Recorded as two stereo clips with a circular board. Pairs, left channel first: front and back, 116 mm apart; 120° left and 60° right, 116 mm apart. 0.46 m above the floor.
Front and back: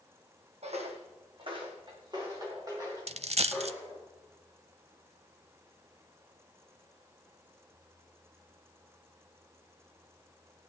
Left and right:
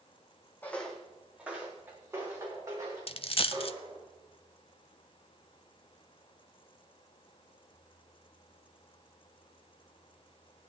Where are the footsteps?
165° right, 1.6 m; by 4.0 s 115° right, 5.5 m.